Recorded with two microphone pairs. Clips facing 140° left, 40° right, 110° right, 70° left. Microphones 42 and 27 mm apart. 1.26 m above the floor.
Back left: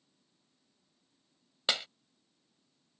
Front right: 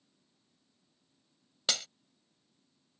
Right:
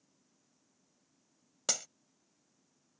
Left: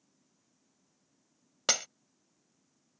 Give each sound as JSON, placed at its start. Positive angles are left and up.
{"t": 1.7, "sound": "breaking glass", "azimuth_deg": 85}